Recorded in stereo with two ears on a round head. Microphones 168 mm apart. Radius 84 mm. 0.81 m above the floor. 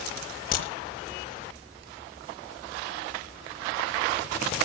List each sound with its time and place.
0.5 s a crack: 45° left (ahead or behind), 6 m